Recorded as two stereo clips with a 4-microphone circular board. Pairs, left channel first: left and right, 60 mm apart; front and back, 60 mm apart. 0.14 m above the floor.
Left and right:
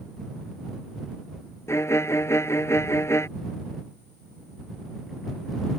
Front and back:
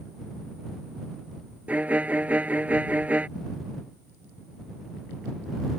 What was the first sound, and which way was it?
A violin, 120° left.